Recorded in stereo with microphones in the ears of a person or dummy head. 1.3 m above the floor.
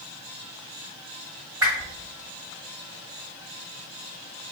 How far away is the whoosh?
About 1.4 m.